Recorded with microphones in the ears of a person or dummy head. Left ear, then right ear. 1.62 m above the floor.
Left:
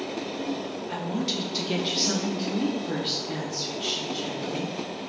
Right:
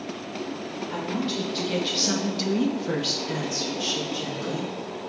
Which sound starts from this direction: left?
A woman speaking, at 0.9 s.